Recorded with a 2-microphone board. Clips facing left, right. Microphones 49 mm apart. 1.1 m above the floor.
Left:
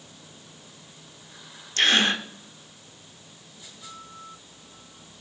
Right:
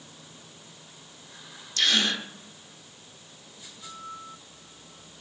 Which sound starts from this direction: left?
A gasp, at 1.8 s.